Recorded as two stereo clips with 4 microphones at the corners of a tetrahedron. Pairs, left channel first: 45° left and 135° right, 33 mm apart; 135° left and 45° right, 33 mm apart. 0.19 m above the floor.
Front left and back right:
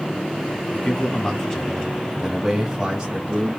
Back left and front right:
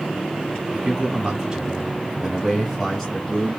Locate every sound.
0.7 s a man speaking: straight ahead, 1.7 m; by 3.6 s 155° right, 1.6 m